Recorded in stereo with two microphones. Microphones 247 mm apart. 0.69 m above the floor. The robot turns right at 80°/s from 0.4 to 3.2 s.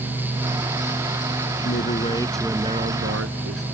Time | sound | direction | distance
1.6 | a man speaking | 120° left | ?